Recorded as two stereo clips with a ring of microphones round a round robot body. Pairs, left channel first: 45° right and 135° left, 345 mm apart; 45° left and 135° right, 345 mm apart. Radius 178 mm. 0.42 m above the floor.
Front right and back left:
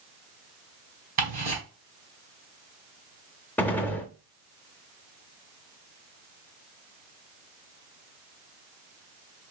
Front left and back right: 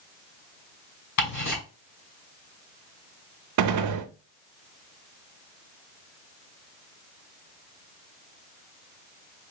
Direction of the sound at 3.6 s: 130° right.